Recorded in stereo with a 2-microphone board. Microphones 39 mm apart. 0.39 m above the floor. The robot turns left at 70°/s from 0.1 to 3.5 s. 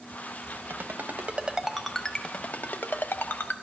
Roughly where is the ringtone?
Right.